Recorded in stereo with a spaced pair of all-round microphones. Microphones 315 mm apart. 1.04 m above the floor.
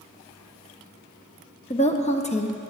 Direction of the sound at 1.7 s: 20° left (ahead or behind).